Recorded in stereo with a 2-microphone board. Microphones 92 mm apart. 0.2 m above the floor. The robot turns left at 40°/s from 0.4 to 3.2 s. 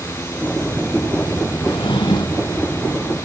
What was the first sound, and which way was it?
A drawer, 85° left.